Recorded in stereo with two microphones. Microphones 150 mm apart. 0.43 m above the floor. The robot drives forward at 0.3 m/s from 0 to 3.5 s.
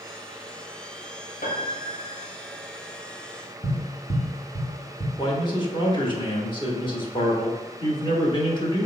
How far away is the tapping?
About 1.7 m.